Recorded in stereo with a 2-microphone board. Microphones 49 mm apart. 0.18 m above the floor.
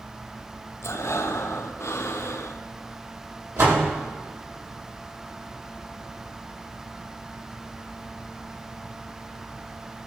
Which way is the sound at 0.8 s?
85° left.